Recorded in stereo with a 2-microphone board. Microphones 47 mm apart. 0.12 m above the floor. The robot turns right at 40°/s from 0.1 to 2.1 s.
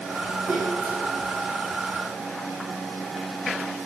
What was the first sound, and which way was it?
A splash, 55° right (ahead or behind).